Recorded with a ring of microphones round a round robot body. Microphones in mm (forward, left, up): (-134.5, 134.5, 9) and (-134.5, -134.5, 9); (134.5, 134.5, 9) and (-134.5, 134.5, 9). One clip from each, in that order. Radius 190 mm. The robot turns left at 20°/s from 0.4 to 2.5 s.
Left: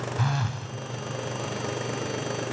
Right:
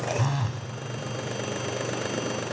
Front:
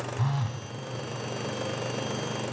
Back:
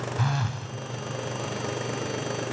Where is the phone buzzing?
145° left, 0.7 m; by 0.7 s 140° left, 0.7 m.